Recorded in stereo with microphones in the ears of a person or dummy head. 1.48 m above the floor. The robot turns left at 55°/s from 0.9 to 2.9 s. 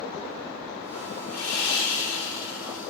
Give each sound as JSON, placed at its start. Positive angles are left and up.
{"t": 1.3, "sound": "sawing", "azimuth_deg": 130, "distance_m": 0.8}